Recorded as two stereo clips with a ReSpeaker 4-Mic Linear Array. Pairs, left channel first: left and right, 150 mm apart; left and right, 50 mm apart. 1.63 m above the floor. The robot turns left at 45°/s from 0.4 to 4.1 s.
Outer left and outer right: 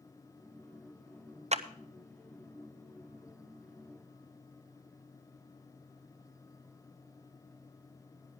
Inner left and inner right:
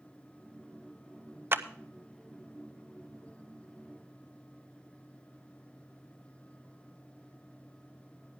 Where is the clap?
45° right (ahead or behind), 0.6 m; by 1.6 s 50° right (ahead or behind), 0.6 m.